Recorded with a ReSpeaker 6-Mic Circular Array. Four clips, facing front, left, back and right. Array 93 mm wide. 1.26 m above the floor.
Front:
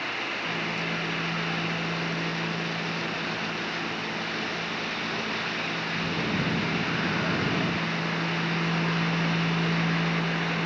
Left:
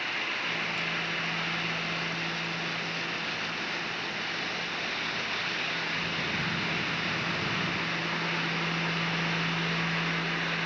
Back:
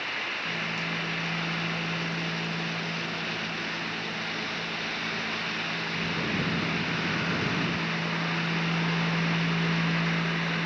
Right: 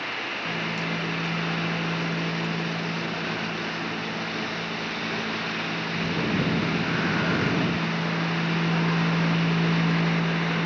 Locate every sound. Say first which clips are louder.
0.5 s a microwave: right 5 dB, front 3 dB; 75° right, 0.7 m